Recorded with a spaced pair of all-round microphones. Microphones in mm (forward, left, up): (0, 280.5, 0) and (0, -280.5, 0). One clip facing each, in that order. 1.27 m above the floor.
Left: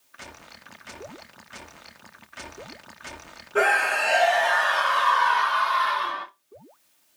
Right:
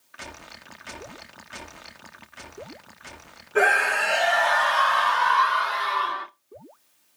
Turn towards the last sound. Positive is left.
turn(degrees=60)  # may be behind; listen again after turning